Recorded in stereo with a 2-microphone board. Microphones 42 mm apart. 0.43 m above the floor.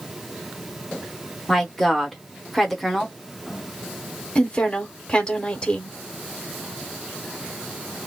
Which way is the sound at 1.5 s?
Centre (ahead or behind).